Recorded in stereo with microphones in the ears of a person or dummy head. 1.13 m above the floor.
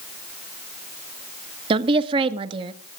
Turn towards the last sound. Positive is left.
turn(degrees=-30)  # may be behind; listen again after turning